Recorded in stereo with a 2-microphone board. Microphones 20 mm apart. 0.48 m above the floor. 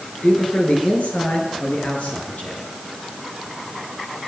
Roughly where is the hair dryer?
I don't hear a hair dryer.